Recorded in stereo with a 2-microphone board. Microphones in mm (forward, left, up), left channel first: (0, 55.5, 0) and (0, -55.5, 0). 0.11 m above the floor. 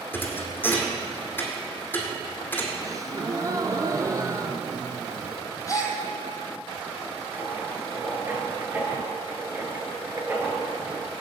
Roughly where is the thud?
Centre.